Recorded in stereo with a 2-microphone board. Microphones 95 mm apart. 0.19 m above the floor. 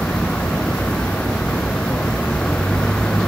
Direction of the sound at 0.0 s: 10° left (ahead or behind).